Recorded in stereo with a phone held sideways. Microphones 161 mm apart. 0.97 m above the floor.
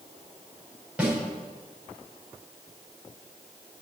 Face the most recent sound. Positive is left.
turn(degrees=-10)  # may be behind; listen again after turning